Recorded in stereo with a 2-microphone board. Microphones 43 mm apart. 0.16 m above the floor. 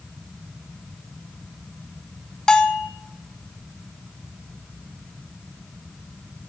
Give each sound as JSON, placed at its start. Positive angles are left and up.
{"t": 2.5, "sound": "a bell", "side_deg": 15, "distance_m": 0.7}